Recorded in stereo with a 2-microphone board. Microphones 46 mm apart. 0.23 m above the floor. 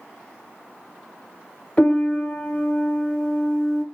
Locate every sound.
1.8 s a piano: 25° left (ahead or behind), 1.4 m